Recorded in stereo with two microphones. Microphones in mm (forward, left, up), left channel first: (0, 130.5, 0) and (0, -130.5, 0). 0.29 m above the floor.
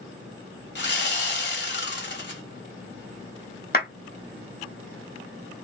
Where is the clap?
40° left (ahead or behind), 1.0 m.